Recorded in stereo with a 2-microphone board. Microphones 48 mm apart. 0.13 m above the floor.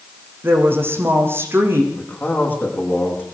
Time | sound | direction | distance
0.4 | a woman speaking | 50° right (ahead or behind) | 6 m
1.9 | a man speaking | 40° left (ahead or behind) | 9 m